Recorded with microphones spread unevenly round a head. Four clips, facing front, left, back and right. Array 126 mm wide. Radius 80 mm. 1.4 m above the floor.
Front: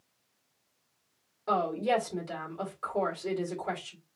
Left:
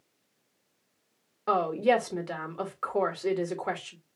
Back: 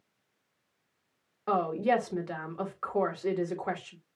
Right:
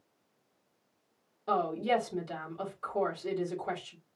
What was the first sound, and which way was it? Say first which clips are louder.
A woman speaking: left 5 dB, back 1 dB; 105° left.